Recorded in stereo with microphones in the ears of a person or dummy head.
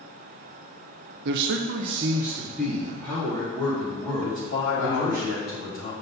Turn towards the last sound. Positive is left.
turn(degrees=70)  # may be behind; listen again after turning